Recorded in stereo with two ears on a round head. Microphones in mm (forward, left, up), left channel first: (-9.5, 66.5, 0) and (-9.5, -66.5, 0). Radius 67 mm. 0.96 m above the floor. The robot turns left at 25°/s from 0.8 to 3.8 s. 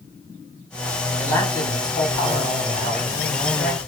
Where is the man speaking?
170° left, 7.5 m; by 3.8 s 105° left, 7.5 m.